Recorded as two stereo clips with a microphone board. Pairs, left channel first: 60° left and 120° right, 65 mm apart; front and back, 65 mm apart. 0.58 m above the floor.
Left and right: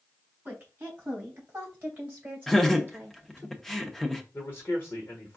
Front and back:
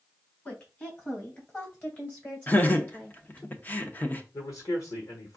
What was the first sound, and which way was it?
A woman speaking, 55° right.